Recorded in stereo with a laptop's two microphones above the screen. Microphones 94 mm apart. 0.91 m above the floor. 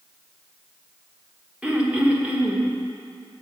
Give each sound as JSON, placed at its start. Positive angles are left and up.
{"t": 1.6, "sound": "throat clearing", "side_deg": -15, "distance_m": 1.1}